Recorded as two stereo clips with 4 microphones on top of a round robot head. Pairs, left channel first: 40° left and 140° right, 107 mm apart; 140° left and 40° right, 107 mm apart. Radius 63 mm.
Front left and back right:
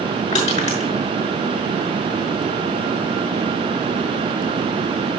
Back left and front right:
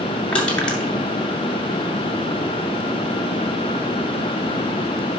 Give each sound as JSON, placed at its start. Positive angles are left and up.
{"t": 0.3, "sound": "crushing", "azimuth_deg": 60, "distance_m": 5.5}